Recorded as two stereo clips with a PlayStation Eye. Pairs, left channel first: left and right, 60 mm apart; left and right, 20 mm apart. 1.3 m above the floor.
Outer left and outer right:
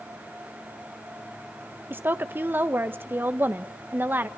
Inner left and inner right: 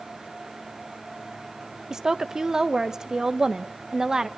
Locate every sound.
1.9 s a woman speaking: 35° right (ahead or behind), 1.3 m